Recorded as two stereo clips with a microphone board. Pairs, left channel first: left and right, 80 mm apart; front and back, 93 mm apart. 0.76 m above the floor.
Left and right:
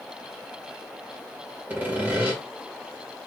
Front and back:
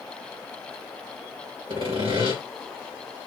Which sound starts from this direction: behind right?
Sawing, at 1.7 s.